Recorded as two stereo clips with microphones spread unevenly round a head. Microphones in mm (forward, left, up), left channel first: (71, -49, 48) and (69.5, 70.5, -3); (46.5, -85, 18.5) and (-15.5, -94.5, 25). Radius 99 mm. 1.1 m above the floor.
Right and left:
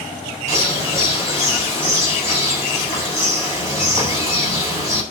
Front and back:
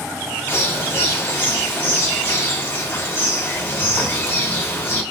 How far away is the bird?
About 5 m.